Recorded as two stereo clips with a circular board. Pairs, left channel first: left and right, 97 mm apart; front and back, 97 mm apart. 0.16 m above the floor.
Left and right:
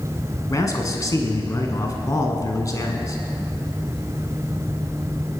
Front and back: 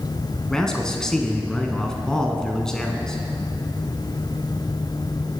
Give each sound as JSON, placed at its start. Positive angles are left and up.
{"t": 0.5, "sound": "a man speaking", "azimuth_deg": 80, "distance_m": 1.2}